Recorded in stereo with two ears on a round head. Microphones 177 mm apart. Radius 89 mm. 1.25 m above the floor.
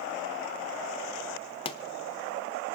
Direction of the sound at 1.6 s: 25° left (ahead or behind).